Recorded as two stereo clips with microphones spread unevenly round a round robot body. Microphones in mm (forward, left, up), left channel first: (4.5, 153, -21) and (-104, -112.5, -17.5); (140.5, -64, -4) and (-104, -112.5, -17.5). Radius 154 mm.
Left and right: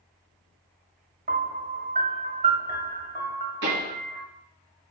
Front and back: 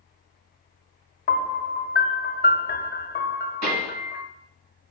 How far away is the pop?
About 3 m.